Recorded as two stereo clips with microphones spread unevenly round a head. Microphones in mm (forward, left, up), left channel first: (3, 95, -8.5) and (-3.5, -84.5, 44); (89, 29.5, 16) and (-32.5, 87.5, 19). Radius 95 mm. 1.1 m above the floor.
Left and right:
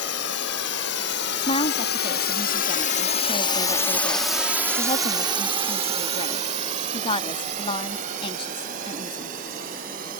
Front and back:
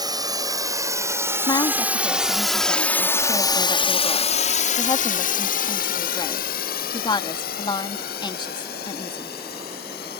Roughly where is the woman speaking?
Ahead left.